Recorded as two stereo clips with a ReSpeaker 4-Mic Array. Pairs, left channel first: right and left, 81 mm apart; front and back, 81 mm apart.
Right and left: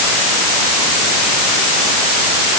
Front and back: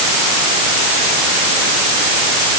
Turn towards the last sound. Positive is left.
No sound to turn to.